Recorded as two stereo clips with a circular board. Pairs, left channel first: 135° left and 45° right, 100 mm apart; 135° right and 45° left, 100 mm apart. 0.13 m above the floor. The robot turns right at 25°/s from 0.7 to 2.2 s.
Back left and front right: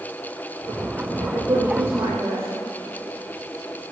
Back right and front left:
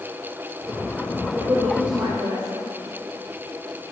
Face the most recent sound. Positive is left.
turn(degrees=20)